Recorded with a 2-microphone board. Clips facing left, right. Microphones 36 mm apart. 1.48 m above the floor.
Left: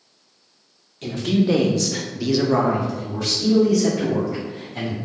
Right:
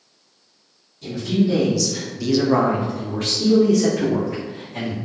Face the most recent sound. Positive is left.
turn(degrees=-75)  # may be behind; listen again after turning